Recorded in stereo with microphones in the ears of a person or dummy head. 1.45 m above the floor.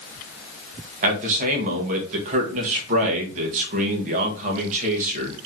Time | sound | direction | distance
1.0 | a man speaking | 45° right (ahead or behind) | 1.3 m